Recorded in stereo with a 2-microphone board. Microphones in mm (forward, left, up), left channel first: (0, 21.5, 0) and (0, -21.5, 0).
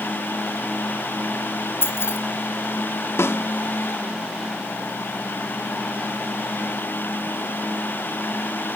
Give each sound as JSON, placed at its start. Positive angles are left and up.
{"t": 1.8, "sound": "keys jangling", "side_deg": 65, "distance_m": 4.0}
{"t": 3.2, "sound": "a snare drum", "side_deg": 75, "distance_m": 1.6}